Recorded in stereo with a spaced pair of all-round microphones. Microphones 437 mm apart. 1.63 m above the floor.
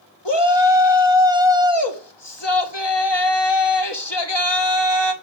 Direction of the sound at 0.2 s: 70° left (ahead or behind).